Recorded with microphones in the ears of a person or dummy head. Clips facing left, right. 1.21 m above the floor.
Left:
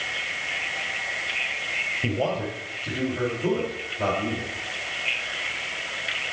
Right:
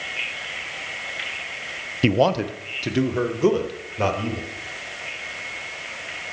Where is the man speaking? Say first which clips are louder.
Right 7 dB; 70° right (ahead or behind), 0.5 m; by 4.5 s 75° right (ahead or behind), 1.8 m.